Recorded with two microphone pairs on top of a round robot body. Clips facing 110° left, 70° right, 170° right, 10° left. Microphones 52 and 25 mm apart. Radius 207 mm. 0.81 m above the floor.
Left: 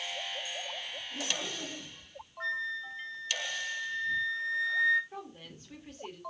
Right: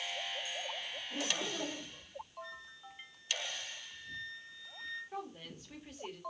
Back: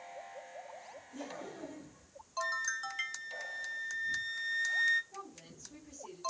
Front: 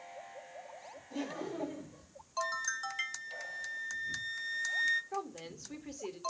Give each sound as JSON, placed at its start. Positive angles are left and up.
{"t": 1.1, "sound": "laughter", "azimuth_deg": -10, "distance_m": 7.0}
{"t": 2.4, "sound": "a flute", "azimuth_deg": 110, "distance_m": 0.7}
{"t": 5.1, "sound": "a woman speaking", "azimuth_deg": 20, "distance_m": 3.0}